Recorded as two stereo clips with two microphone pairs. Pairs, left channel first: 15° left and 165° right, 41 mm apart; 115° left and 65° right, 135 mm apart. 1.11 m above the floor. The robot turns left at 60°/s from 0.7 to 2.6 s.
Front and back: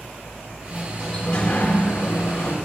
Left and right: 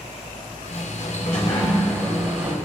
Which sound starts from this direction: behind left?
A sliding door, at 0.7 s.